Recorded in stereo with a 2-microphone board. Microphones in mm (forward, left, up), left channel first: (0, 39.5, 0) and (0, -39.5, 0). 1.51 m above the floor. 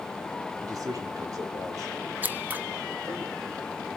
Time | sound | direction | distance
0.6 | a man speaking | 50° right (ahead or behind) | 4.5 m
2.2 | scissors | 25° right (ahead or behind) | 0.9 m